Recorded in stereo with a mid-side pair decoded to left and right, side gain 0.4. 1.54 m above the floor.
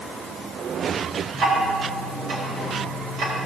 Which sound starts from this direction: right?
Ticking, at 1.3 s.